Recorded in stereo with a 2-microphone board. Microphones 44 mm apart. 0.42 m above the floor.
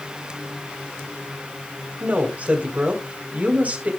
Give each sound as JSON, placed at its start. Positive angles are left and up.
{"t": 2.0, "sound": "a woman speaking", "side_deg": -40, "distance_m": 2.5}